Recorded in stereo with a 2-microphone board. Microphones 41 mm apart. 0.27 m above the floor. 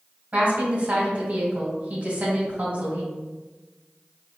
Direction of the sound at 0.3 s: 35° right (ahead or behind).